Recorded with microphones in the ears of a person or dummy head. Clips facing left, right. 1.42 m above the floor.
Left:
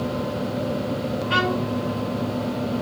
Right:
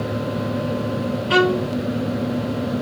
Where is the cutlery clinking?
I don't hear cutlery clinking.